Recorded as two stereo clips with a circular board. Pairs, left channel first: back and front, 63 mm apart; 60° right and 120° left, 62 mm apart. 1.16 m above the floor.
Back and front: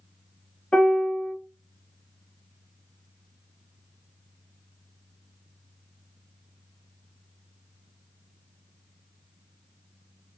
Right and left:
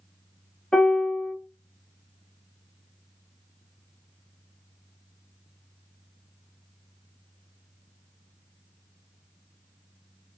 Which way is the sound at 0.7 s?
120° right.